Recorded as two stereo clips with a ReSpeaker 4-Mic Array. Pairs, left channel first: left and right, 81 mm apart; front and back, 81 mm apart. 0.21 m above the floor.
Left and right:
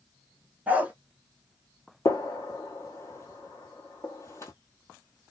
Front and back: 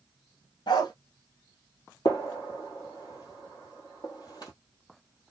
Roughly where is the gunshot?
Ahead left.